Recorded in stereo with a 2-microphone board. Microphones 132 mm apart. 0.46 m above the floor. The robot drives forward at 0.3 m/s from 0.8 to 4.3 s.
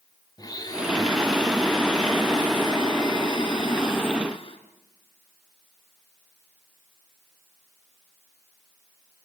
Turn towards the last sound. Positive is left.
turn(degrees=40)  # may be behind; listen again after turning